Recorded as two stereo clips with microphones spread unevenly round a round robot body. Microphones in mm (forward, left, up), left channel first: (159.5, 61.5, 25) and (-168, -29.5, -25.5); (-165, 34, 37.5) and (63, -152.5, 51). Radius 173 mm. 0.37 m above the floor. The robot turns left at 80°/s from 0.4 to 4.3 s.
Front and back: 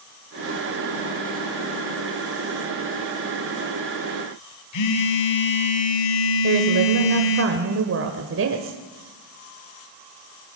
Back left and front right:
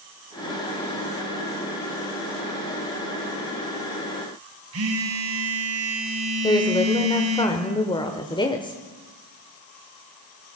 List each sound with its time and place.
4.7 s a phone buzzing: 5° left, 2 m
6.4 s a woman speaking: 155° right, 1.2 m